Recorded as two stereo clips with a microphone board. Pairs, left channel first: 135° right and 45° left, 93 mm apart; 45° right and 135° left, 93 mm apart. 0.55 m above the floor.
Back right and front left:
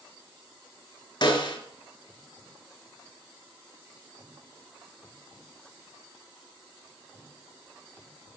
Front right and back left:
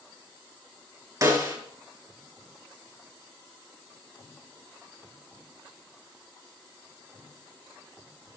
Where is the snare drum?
170° right, 3.5 m.